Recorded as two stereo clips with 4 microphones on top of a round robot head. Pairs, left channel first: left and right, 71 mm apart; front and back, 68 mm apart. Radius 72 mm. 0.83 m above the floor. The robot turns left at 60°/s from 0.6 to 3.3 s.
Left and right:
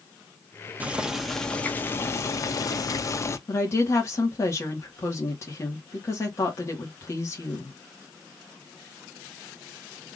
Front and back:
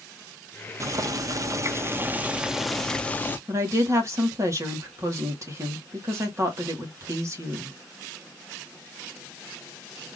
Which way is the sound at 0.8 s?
155° right.